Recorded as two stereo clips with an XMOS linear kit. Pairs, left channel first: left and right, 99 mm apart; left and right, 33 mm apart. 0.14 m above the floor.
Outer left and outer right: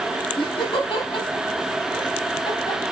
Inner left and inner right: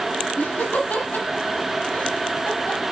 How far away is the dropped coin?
I don't hear a dropped coin.